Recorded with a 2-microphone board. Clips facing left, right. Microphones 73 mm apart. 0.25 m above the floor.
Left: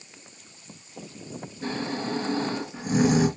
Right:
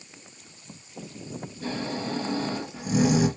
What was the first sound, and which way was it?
Snoring, 35° left (ahead or behind).